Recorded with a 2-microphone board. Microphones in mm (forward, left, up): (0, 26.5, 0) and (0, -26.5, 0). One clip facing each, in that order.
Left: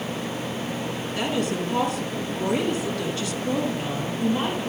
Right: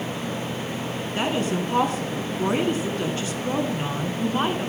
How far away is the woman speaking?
About 1.6 m.